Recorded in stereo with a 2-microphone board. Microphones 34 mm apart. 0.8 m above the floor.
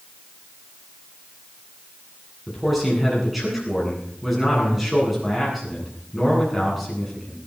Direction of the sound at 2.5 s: Centre (ahead or behind).